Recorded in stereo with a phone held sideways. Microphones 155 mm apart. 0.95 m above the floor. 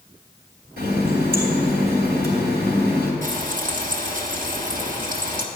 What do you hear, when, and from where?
0.8 s a running tap: 80° right, 3 m
3.2 s frying: 55° right (ahead or behind), 1.3 m